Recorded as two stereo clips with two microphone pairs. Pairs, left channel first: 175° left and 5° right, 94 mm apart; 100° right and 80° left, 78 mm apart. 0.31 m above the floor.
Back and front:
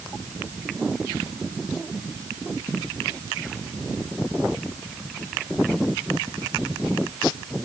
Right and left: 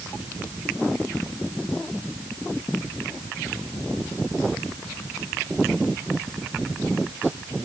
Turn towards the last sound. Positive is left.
No sound to turn to.